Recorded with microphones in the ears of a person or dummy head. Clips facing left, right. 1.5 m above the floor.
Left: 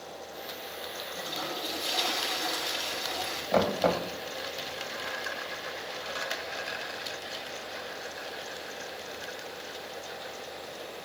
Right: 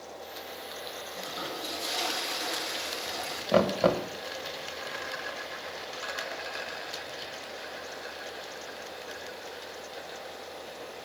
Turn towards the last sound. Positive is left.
turn(degrees=-50)  # may be behind; listen again after turning